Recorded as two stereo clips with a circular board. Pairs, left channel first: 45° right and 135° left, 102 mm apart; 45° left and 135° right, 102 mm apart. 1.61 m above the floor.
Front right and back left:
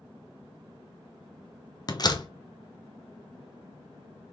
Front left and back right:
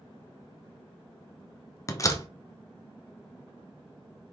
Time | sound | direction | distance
1.9 | a door slam | 5° right | 1.0 m